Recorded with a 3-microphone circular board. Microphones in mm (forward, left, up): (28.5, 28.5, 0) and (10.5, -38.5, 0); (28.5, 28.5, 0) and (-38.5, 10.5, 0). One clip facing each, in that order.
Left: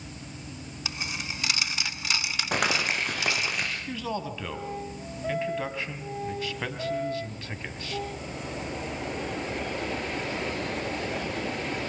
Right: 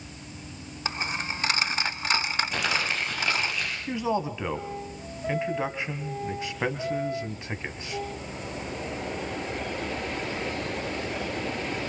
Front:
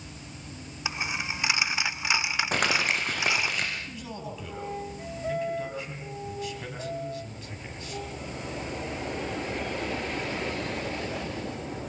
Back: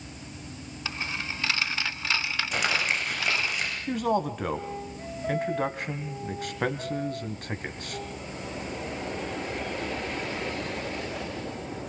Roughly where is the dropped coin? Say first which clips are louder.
Right 5 dB, front 2 dB; ahead right.